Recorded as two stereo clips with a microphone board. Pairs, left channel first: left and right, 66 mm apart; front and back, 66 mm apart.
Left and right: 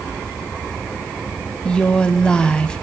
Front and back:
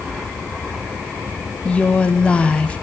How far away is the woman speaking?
About 1.2 m.